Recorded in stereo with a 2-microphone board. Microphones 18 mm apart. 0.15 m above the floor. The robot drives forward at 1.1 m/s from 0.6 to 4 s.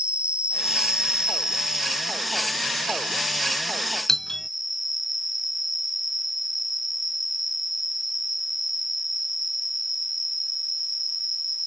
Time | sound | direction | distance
0.0 | an insect | 70° right (ahead or behind) | ?
4.1 | a doorbell | 25° left (ahead or behind) | ?